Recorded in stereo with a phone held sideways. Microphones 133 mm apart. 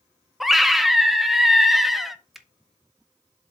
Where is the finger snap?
Centre (ahead or behind), 0.7 m.